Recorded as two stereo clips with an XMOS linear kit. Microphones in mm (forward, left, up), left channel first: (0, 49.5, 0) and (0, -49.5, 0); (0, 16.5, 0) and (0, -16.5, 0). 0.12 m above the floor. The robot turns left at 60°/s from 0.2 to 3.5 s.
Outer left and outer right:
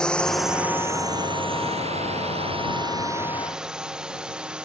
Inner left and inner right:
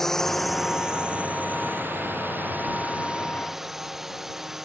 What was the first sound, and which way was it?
A drone, 10° left (ahead or behind).